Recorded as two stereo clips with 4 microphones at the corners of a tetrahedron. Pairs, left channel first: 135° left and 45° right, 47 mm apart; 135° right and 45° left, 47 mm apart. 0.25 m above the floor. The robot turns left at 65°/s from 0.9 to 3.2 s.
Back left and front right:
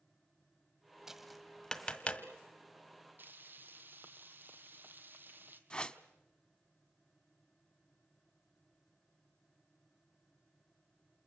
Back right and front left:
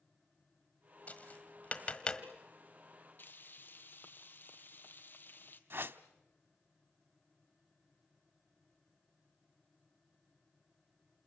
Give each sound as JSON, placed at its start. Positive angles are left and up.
{"t": 1.1, "sound": "tapping", "azimuth_deg": -120, "distance_m": 1.5}
{"t": 3.2, "sound": "frying", "azimuth_deg": -90, "distance_m": 1.4}
{"t": 5.7, "sound": "a whoosh", "azimuth_deg": 70, "distance_m": 0.8}